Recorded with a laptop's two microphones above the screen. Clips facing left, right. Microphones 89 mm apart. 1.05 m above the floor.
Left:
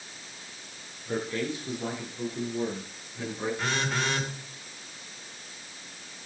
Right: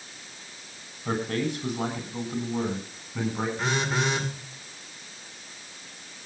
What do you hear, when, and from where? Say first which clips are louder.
1.1 s a man speaking: right 3 dB; 85° right, 6.5 m
3.6 s a phone buzzing: right 3 dB; 25° right (ahead or behind), 2.5 m